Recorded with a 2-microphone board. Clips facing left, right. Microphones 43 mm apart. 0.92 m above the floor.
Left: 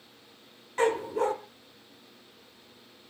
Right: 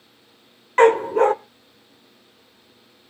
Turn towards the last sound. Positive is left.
turn(degrees=-55)  # may be behind; listen again after turning